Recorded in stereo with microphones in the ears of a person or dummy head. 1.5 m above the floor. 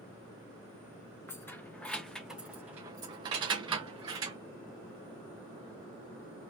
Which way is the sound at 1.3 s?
10° left (ahead or behind).